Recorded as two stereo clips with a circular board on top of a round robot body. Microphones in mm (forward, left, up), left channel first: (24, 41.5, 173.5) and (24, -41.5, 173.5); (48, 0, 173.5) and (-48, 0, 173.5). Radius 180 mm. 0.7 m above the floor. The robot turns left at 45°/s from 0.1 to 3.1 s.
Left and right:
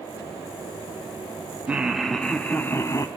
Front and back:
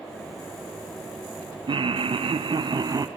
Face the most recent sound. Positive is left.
turn(degrees=130)